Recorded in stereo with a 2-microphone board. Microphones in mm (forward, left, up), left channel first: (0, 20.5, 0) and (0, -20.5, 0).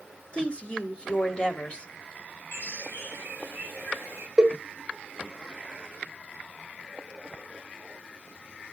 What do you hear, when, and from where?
0.3 s a woman speaking: 25° left (ahead or behind), 1.1 m
2.5 s a bird: 75° left (ahead or behind), 3 m
4.4 s a cowbell: 20° right (ahead or behind), 1.0 m